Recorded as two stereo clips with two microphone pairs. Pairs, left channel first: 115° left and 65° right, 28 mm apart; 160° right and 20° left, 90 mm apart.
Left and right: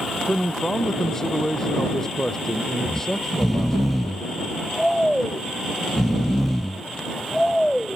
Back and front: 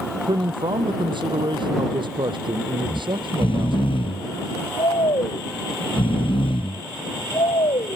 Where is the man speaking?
40° left.